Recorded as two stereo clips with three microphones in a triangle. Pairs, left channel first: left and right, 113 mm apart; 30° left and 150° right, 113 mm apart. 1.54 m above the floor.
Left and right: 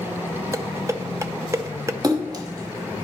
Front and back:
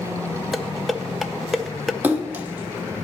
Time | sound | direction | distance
0.5 | dishes clattering | 60° right | 0.5 m
2.0 | a splash | 90° right | 1.0 m